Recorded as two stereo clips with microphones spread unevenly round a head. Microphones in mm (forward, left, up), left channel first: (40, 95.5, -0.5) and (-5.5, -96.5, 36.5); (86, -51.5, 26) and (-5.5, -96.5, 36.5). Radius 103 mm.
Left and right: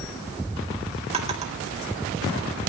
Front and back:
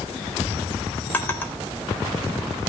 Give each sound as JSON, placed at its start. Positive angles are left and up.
{"t": 1.1, "sound": "a drawer", "azimuth_deg": -50, "distance_m": 3.5}